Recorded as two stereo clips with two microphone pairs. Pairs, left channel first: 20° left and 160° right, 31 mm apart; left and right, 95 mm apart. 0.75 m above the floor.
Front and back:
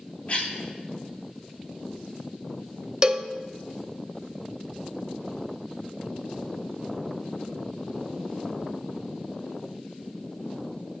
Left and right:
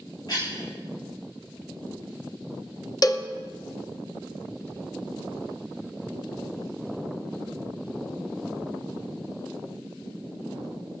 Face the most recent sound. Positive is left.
turn(degrees=135)